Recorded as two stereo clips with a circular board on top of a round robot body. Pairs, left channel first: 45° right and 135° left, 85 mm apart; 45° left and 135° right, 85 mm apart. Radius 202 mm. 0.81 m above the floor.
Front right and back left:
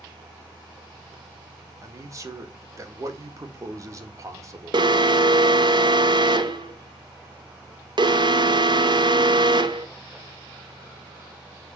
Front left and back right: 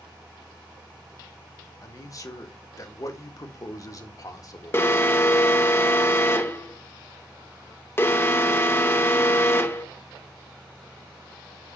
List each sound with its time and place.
1.8 s a man speaking: 85° left, 2 m
4.7 s an alarm: 105° left, 1.1 m